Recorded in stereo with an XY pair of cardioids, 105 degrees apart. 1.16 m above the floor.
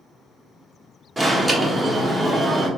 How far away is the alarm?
About 1.5 m.